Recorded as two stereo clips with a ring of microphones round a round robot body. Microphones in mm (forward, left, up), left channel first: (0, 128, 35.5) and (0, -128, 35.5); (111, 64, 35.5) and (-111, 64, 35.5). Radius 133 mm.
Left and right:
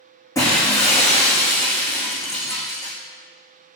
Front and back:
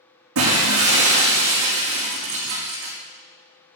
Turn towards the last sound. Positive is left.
turn(degrees=165)